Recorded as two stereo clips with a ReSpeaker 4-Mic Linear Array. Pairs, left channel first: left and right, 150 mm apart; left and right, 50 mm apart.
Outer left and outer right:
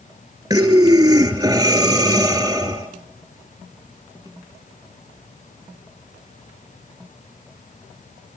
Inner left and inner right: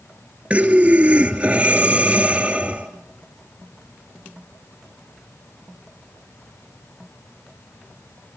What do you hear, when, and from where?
0.5 s breathing: 20° right (ahead or behind), 2 m